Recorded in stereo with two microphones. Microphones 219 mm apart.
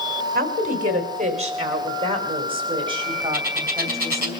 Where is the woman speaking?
40° right (ahead or behind), 3 m; by 4.3 s 15° right (ahead or behind), 4.5 m.